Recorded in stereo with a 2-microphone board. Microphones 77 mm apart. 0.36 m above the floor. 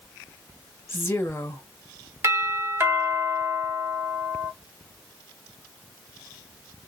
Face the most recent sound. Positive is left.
turn(degrees=-30)  # may be behind; listen again after turning